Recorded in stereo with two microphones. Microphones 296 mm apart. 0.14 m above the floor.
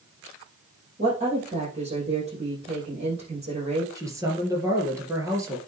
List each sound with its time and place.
1.0 s a woman speaking: 20° right (ahead or behind), 5.5 m
4.0 s a man speaking: 10° right (ahead or behind), 3 m